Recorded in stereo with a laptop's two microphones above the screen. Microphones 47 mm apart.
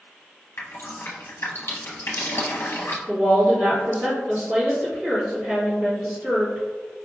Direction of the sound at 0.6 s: 60° left (ahead or behind).